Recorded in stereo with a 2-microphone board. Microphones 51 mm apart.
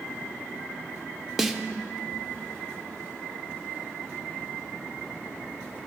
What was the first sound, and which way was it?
A snare drum, 5° right (ahead or behind).